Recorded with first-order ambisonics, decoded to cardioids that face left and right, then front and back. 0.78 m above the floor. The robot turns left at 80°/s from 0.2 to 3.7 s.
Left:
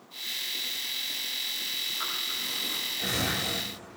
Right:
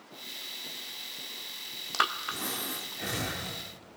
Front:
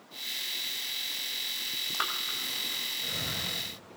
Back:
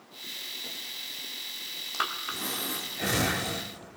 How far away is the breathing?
About 1.5 m.